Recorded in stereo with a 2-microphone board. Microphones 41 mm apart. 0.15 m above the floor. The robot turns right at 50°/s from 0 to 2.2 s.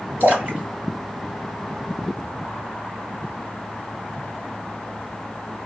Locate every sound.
0.2 s a splash: 60° right (ahead or behind), 1.8 m; by 1.9 s centre (ahead or behind), 1.8 m